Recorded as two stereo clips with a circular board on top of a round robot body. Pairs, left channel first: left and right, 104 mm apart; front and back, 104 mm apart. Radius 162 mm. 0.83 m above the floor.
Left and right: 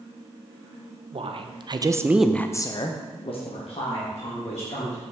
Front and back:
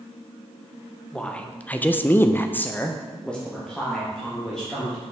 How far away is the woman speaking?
About 1.2 m.